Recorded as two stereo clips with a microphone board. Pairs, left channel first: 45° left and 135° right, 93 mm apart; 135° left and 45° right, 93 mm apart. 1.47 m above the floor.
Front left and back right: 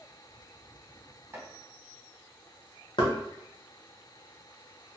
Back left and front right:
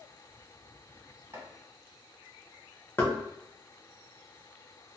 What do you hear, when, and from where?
1.3 s chopping: 85° right, 1.6 m
3.0 s knocking: 70° left, 0.7 m